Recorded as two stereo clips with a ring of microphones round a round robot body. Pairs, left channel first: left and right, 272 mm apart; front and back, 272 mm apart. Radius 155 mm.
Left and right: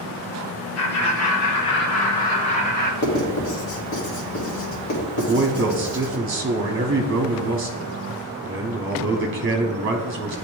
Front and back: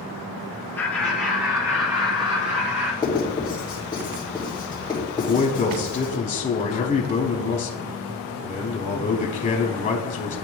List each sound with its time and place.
0.8 s laughter: 85° left, 1.6 m; by 2.9 s 115° left, 2.5 m
3.0 s writing: 70° left, 2 m
5.2 s a man speaking: 55° right, 1.0 m